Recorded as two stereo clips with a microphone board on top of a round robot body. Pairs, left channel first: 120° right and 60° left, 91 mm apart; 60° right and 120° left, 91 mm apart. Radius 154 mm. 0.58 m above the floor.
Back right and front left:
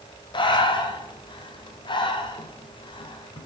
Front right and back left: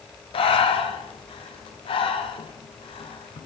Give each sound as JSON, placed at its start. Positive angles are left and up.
{"t": 0.3, "sound": "breathing", "azimuth_deg": -85, "distance_m": 1.0}